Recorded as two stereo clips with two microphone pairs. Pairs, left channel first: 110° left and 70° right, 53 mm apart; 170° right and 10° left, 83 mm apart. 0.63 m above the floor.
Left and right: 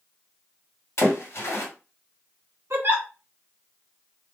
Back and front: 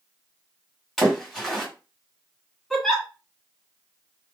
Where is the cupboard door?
I don't hear a cupboard door.